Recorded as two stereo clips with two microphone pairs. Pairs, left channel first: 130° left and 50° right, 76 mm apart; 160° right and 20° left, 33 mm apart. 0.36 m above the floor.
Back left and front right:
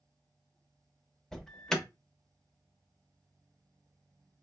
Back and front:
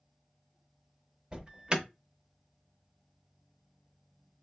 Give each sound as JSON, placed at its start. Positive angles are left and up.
{"t": 1.3, "sound": "an alarm", "azimuth_deg": 50, "distance_m": 0.6}